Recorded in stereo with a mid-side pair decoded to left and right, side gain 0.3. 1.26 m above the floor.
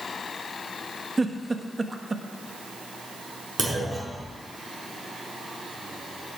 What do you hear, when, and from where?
1.2 s a giggle: 35° right, 1.3 m
3.6 s a clunk: 45° right, 5 m